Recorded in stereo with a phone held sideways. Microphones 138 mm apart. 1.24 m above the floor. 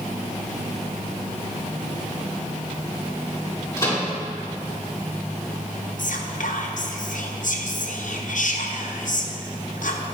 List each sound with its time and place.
3.8 s a microwave: 20° left (ahead or behind), 3 m
6.0 s whispering: 70° left (ahead or behind), 0.9 m